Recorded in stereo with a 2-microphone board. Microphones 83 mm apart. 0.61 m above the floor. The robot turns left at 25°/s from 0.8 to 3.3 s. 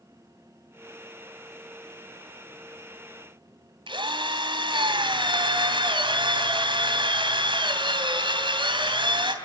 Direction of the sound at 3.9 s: 70° right (ahead or behind).